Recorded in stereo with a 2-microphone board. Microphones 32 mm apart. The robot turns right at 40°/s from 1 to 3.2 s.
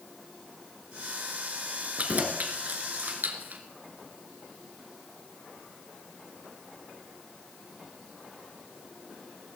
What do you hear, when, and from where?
2.0 s keys jangling: 45° right (ahead or behind), 1.7 m; by 3.6 s 65° right (ahead or behind), 1.7 m